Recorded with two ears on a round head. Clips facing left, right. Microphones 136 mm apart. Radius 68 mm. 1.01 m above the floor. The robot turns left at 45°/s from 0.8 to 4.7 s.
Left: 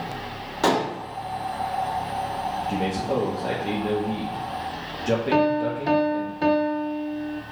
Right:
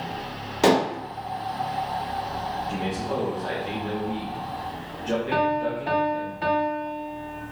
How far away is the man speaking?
About 1.2 m.